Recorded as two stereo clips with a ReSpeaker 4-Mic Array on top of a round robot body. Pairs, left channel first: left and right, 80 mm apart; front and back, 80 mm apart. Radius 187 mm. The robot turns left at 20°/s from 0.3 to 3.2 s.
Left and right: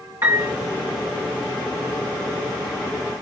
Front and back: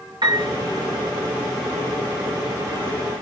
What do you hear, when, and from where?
0.2 s a piano: 150° right, 2.5 m; by 0.5 s 155° right, 2.5 m